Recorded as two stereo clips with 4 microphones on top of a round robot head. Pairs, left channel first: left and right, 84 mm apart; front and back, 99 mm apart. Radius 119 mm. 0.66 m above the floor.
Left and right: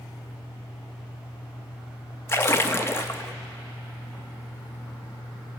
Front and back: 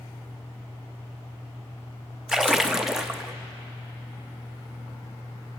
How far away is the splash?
About 1.1 m.